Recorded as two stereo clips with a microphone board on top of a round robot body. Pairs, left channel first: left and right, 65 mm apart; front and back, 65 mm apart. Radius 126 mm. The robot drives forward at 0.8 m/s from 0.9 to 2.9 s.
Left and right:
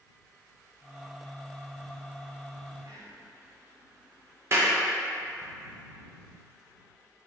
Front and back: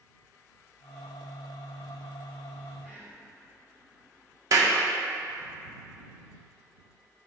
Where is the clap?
145° right, 0.8 m.